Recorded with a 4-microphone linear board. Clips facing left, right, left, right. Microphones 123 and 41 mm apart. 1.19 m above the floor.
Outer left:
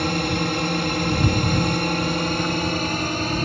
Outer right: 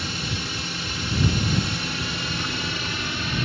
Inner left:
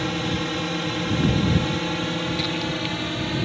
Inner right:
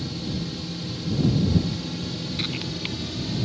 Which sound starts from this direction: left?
A drone, at 0.0 s.